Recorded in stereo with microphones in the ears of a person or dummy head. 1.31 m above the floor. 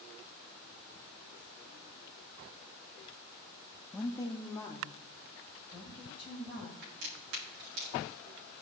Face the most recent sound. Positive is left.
turn(degrees=-70)  # may be behind; listen again after turning